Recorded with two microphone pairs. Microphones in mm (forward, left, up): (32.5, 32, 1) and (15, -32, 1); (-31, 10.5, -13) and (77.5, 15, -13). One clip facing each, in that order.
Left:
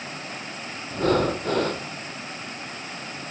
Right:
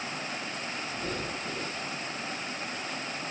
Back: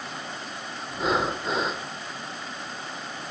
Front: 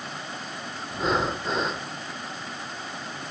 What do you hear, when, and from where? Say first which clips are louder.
0.9 s breathing: left 17 dB, even; 95° left